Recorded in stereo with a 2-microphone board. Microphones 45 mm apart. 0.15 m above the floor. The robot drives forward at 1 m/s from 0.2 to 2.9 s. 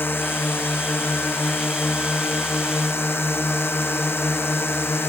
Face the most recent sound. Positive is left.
turn(degrees=60)  # may be behind; listen again after turning